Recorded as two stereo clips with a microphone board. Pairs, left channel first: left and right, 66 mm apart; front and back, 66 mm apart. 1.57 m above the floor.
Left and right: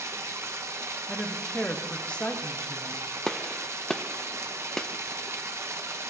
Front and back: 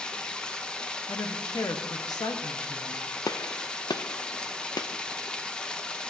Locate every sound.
0.0 s running water: 70° right, 0.9 m
1.1 s a woman speaking: 15° left, 1.2 m
3.3 s a gunshot: 5° left, 0.5 m